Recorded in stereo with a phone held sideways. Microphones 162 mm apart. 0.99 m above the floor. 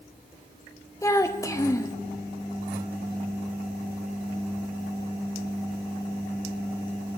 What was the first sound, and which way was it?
A child speaking, 20° left (ahead or behind).